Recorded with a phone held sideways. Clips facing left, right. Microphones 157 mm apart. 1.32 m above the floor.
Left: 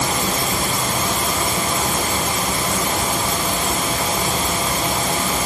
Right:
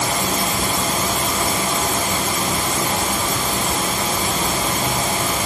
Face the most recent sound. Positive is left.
No sound to turn to.